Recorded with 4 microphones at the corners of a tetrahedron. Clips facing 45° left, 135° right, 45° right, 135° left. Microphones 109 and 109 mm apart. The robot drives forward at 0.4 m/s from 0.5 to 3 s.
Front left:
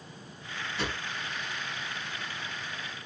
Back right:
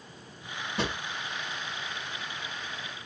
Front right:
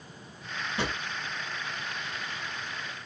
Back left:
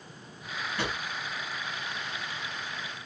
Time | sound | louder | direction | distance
0.8 | a drawer | back right 3 dB, front right 1 dB | 105° right | 1.6 m